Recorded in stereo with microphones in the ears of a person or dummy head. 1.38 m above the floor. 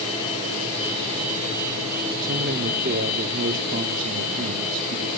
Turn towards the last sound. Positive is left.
turn(degrees=-45)  # may be behind; listen again after turning